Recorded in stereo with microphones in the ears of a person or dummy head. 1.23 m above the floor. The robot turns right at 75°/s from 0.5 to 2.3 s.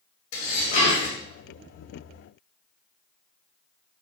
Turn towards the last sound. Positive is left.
turn(degrees=-110)